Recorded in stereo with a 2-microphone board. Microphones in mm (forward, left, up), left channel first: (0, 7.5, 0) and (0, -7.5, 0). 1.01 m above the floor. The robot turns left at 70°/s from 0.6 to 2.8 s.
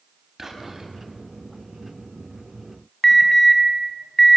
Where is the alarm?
20° left (ahead or behind), 5 m.